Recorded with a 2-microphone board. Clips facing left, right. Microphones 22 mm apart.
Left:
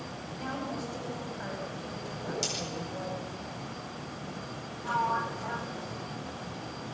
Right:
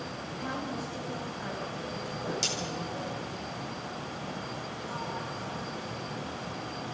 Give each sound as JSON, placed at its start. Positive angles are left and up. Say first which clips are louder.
{"t": 0.3, "sound": "a woman speaking", "louder": "even", "side_deg": 15, "distance_m": 9.0}
{"t": 2.1, "sound": "a whoosh", "louder": "right 2 dB", "side_deg": -15, "distance_m": 9.5}
{"t": 4.8, "sound": "a sliding door", "louder": "left 10 dB", "side_deg": 55, "distance_m": 1.5}